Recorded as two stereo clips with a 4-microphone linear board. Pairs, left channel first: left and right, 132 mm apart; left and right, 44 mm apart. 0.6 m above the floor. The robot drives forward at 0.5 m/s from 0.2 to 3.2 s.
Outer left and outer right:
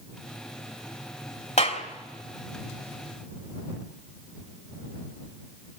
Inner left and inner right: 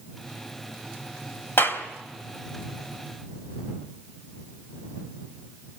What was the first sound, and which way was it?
A clap, 65° left (ahead or behind).